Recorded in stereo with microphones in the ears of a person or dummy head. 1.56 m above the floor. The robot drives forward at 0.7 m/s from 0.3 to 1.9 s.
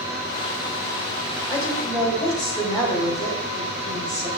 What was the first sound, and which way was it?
A woman speaking, 5° left (ahead or behind).